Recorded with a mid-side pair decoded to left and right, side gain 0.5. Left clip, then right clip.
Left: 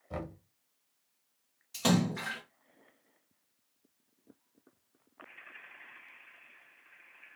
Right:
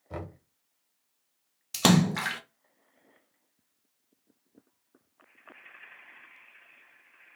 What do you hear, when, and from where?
0.1 s knocking: 10° right, 1.0 m
1.7 s a splash: 70° right, 0.5 m